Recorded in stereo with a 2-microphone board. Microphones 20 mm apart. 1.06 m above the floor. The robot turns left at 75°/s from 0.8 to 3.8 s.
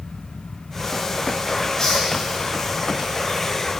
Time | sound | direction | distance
1.8 | a hiss | 15° left (ahead or behind) | 5 m